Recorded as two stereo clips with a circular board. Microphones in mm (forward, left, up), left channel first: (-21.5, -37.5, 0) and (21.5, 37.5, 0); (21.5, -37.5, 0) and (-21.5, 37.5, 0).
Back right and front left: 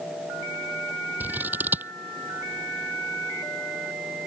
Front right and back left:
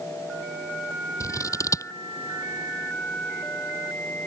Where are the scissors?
10° right.